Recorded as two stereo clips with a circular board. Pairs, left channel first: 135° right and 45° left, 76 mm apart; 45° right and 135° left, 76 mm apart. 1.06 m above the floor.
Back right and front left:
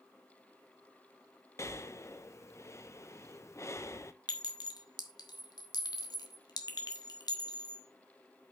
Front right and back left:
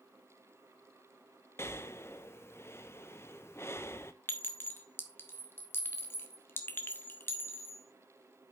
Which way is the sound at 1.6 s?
90° right.